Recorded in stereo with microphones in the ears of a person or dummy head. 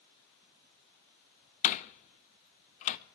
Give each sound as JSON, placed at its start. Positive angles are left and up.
{"t": 1.6, "sound": "a door slam", "side_deg": 40, "distance_m": 0.9}